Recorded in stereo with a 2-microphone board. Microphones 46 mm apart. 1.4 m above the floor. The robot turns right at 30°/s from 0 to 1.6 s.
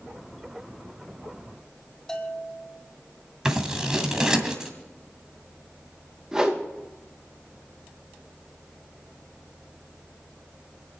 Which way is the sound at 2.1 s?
10° left (ahead or behind).